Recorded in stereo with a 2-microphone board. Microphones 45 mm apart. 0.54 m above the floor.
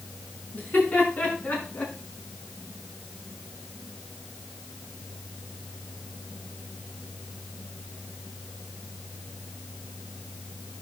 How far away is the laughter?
About 7 m.